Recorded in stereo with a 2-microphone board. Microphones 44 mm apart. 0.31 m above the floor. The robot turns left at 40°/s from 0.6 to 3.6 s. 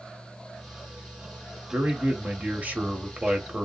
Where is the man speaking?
55° right, 1.3 m; by 3.6 s 135° right, 1.3 m.